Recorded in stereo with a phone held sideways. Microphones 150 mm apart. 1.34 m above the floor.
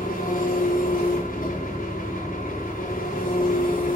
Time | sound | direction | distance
0.0 | an engine running | 80° left | 3 m